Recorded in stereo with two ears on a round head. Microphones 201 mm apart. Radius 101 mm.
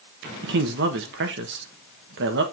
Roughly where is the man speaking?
Right.